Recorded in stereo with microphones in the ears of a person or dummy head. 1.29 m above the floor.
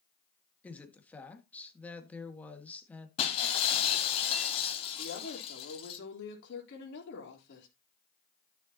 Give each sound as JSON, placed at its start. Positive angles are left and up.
{"t": 0.6, "sound": "a woman speaking", "side_deg": 5, "distance_m": 1.7}
{"t": 3.2, "sound": "breaking glass", "side_deg": 30, "distance_m": 1.9}
{"t": 5.0, "sound": "a woman speaking", "side_deg": 60, "distance_m": 3.5}